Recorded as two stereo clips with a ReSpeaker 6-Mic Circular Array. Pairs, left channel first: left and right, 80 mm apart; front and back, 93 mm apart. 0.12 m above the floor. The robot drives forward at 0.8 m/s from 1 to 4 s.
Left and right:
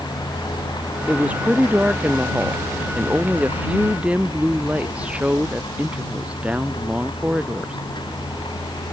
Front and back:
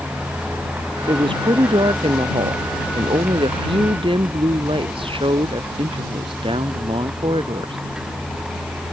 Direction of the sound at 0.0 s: 110° left.